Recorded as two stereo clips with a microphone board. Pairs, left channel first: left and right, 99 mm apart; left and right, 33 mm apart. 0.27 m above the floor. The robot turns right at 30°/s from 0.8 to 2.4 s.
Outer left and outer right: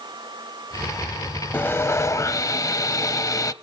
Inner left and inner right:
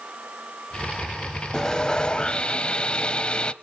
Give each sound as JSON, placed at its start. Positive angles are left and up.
{"t": 1.5, "sound": "sawing", "side_deg": 20, "distance_m": 0.6}